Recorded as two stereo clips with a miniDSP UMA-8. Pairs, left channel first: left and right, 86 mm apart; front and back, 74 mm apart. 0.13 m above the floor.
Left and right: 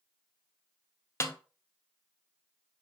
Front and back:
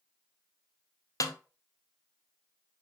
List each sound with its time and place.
1.2 s a snare drum: 35° left, 0.6 m